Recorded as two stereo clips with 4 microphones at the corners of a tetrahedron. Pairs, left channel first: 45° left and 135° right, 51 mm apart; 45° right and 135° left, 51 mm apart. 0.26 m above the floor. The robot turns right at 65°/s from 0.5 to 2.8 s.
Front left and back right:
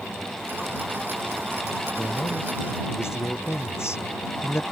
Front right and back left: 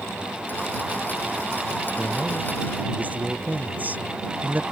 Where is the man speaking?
20° left; by 4.6 s 75° left.